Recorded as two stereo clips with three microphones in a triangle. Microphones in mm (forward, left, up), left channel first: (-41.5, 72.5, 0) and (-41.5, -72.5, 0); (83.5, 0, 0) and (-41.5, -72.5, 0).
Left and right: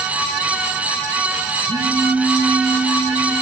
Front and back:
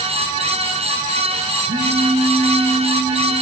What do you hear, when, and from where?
1.7 s a phone buzzing: 155° right, 3.5 m